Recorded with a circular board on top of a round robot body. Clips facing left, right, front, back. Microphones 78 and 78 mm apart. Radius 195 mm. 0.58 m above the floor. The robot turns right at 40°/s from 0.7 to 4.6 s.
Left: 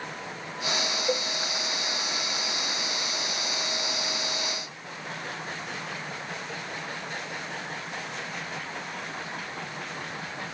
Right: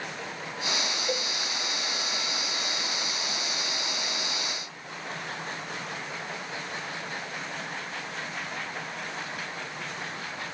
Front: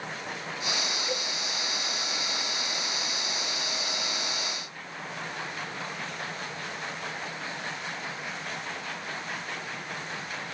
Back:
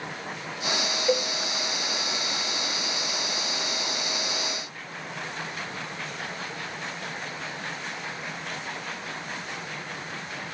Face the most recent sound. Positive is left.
turn(degrees=-55)